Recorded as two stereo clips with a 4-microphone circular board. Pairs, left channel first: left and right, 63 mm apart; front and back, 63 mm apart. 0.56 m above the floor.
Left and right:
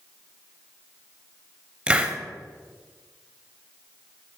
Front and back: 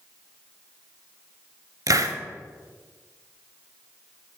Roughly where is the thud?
No thud in this recording.